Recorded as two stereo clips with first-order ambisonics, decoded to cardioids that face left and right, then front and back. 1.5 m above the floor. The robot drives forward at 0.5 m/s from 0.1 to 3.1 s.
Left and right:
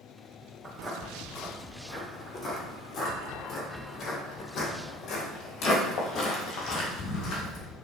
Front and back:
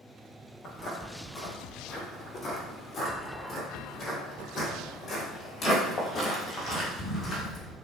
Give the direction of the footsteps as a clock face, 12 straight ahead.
12 o'clock.